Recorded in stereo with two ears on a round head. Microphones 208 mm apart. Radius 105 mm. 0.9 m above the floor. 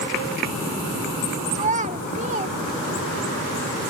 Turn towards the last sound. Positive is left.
turn(degrees=-35)  # may be behind; listen again after turning